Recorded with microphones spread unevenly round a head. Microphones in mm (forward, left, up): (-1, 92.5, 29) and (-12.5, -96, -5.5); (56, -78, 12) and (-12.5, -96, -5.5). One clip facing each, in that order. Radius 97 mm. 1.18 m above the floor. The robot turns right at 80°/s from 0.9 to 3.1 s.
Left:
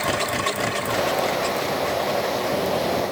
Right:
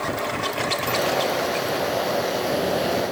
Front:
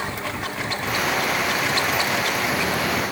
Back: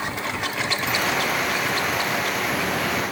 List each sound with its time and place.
Only background noise.